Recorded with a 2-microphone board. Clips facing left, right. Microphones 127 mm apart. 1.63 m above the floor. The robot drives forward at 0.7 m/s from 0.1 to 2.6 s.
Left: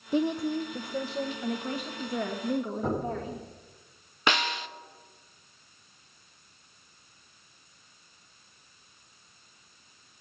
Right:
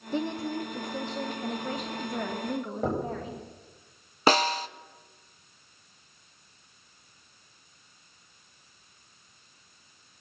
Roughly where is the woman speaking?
Centre.